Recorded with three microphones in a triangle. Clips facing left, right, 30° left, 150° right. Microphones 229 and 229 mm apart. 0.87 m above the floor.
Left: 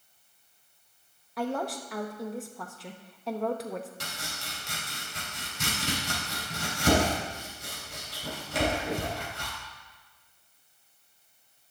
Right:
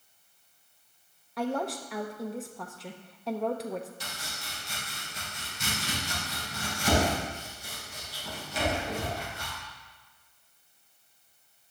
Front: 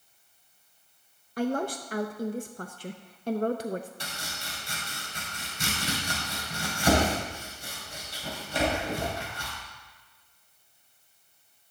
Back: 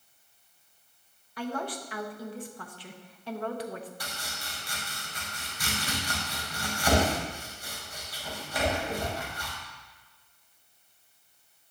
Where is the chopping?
95° left, 3.5 m.